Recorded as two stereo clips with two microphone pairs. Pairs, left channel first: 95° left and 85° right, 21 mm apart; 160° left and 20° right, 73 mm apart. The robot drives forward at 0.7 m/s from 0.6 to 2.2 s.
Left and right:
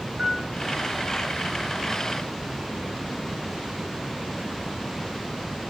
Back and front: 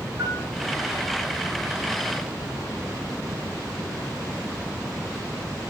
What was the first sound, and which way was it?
A piano, 65° right.